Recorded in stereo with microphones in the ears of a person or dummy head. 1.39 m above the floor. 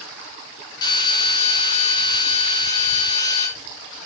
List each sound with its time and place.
0.8 s a drill: 20° left (ahead or behind), 4.5 m